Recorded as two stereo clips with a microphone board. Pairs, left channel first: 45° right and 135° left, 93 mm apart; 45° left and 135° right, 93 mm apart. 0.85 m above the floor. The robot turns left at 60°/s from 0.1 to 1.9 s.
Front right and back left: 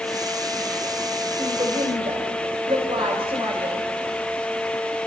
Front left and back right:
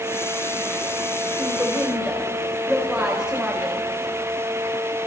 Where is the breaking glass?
No breaking glass in this recording.